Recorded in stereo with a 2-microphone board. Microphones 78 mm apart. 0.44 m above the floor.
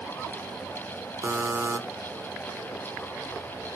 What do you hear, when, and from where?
1.2 s a buzzer: 35° right (ahead or behind), 0.7 m